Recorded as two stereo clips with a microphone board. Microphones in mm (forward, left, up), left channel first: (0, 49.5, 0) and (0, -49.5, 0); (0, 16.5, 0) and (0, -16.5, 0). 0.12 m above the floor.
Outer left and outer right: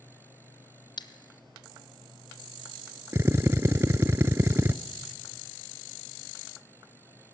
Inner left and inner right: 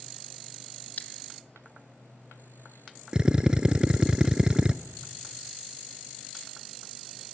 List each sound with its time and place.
1.0 s scissors: 55° left (ahead or behind), 1.0 m
3.1 s a drill: 30° right (ahead or behind), 0.5 m